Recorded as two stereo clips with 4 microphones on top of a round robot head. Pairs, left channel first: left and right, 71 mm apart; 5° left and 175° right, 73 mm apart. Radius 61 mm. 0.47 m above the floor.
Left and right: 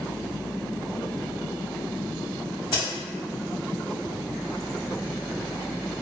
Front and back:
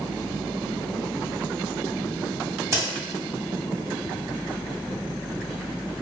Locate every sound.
2.7 s a crack: 140° left, 1.6 m